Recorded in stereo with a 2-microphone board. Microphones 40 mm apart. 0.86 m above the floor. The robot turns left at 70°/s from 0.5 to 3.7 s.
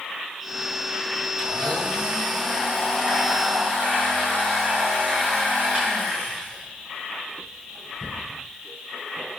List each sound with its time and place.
1.4 s a blender: 140° left, 4.5 m; by 8.2 s 25° right, 4.5 m